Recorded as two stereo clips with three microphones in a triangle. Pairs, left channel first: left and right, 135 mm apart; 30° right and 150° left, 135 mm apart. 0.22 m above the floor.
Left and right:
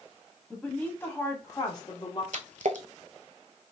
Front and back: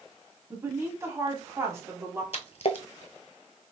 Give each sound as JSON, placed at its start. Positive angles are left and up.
{"t": 0.5, "sound": "a woman speaking", "azimuth_deg": 165, "distance_m": 1.2}
{"t": 2.3, "sound": "a splash", "azimuth_deg": -70, "distance_m": 0.7}